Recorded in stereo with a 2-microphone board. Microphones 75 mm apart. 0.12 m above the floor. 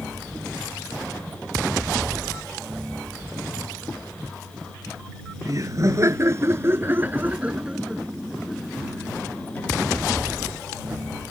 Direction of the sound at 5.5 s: 50° right (ahead or behind).